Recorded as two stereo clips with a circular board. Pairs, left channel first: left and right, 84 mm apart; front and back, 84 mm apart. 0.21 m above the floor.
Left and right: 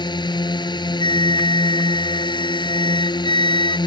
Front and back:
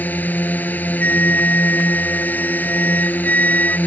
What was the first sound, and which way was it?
A drone, 70° left.